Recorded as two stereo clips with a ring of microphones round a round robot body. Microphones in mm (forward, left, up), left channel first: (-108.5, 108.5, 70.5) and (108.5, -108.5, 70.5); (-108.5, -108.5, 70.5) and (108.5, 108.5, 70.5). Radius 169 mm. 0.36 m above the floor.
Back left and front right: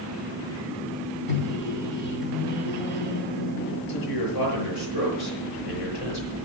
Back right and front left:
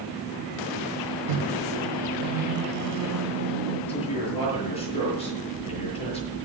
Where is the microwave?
80° left, 2.5 m.